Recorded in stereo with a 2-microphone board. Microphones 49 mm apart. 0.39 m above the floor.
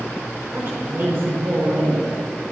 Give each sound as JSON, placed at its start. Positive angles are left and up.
{"t": 0.5, "sound": "a woman speaking", "side_deg": -50, "distance_m": 4.0}